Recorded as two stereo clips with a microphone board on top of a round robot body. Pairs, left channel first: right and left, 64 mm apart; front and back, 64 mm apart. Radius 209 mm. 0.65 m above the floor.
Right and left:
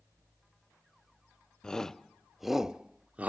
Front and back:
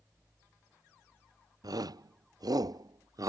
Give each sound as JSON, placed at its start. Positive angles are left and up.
{"t": 1.6, "sound": "a shout", "azimuth_deg": -170}